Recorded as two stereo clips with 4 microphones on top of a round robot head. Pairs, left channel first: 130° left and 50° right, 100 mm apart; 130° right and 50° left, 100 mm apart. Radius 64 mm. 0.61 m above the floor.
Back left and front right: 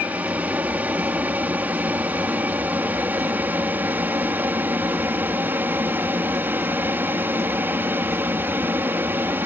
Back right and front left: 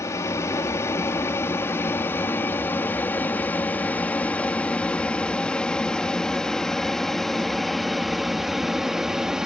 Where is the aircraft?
110° right; by 9.5 s 25° right.